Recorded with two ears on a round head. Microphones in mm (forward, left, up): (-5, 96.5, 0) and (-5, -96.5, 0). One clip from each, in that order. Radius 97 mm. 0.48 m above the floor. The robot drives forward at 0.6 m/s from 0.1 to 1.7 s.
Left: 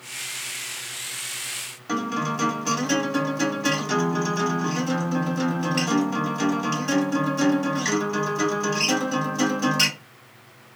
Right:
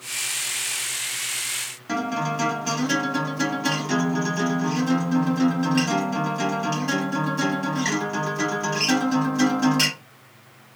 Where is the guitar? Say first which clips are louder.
Even; 5° left (ahead or behind), 1.2 m.